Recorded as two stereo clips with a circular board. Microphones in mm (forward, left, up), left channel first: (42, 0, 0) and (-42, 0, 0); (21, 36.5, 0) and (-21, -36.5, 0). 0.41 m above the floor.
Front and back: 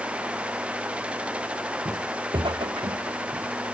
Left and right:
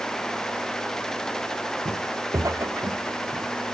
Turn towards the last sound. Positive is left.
turn(degrees=-175)